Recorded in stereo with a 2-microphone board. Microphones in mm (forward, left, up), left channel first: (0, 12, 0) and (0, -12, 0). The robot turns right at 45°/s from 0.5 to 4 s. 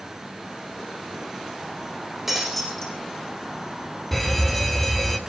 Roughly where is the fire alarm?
Centre.